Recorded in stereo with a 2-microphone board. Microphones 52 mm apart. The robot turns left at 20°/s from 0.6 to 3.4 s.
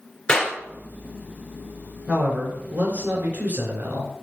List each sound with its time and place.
0.3 s a clap: 15° left (ahead or behind), 3 m
2.1 s a man speaking: 20° right (ahead or behind), 2.5 m; by 4.1 s 45° right (ahead or behind), 2.5 m